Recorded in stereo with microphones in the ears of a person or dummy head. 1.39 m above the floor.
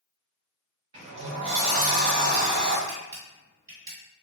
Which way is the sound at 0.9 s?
35° right (ahead or behind).